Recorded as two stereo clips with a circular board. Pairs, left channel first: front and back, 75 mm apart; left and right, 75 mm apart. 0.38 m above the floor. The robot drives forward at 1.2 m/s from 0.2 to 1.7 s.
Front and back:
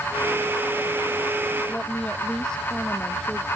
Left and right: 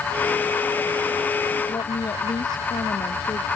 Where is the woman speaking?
80° left.